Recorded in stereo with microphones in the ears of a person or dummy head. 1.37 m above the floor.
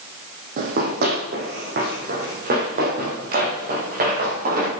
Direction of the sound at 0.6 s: 50° right (ahead or behind).